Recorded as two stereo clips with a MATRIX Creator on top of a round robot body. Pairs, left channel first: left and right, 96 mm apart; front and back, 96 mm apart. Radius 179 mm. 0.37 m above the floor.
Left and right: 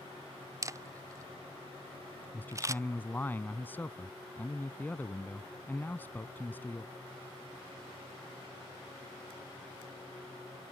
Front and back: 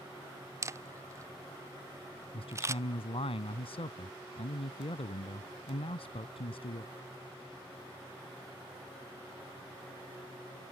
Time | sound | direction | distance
0.6 | a camera shutter | 130° right | ?
2.3 | a man speaking | 20° left | ?